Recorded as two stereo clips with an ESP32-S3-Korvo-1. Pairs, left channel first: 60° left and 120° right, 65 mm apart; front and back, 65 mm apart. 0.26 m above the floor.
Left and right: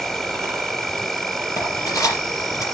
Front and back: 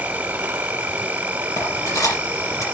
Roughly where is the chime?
I don't hear a chime.